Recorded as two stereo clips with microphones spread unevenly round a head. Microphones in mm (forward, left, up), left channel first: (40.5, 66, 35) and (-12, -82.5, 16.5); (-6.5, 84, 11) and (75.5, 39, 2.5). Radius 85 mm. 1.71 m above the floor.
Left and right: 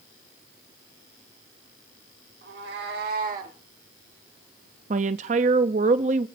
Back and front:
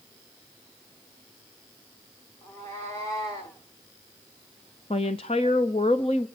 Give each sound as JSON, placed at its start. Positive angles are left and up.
{"t": 2.4, "sound": "a cat meowing", "azimuth_deg": -135, "distance_m": 3.0}
{"t": 4.9, "sound": "a woman speaking", "azimuth_deg": -160, "distance_m": 0.6}